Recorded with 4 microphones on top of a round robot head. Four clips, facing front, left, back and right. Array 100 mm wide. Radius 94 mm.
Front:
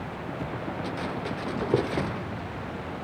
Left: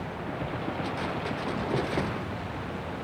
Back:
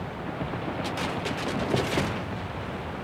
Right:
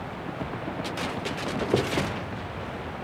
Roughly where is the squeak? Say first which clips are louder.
Right 6 dB, front 3 dB; ahead right.